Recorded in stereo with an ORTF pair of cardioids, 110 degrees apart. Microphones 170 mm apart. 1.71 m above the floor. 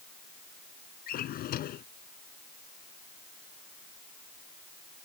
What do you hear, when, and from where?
1.1 s a drawer: 65° left